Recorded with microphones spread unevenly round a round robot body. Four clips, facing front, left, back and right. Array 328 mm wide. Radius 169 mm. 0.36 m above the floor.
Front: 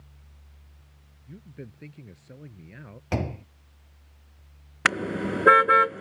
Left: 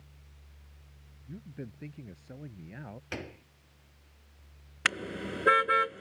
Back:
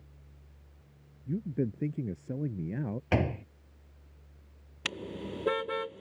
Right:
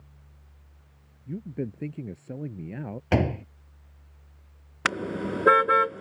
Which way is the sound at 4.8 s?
30° right.